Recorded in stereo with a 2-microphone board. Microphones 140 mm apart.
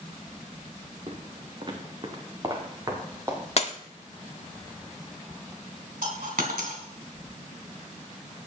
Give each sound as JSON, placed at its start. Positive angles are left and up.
{"t": 1.1, "sound": "footsteps", "side_deg": -50, "distance_m": 1.8}
{"t": 3.6, "sound": "breaking glass", "side_deg": 50, "distance_m": 0.7}
{"t": 6.0, "sound": "a dropped coin", "side_deg": -85, "distance_m": 2.5}